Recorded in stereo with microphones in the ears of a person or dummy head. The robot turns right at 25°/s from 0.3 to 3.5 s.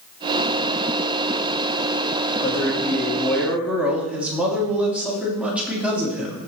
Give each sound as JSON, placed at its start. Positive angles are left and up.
{"t": 2.4, "sound": "a man speaking", "side_deg": 20, "distance_m": 3.0}